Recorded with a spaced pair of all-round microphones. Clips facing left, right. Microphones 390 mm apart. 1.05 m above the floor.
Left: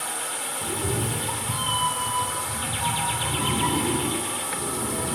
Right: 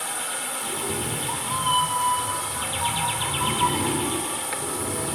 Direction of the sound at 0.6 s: 40° left (ahead or behind).